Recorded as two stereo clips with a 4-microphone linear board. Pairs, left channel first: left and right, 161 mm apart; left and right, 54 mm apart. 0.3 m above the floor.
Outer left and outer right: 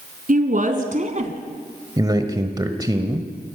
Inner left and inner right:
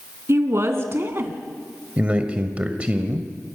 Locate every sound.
0.3 s a woman speaking: 60° right (ahead or behind), 3.5 m; by 1.3 s 45° right (ahead or behind), 2.5 m
2.0 s a man speaking: 25° right (ahead or behind), 1.4 m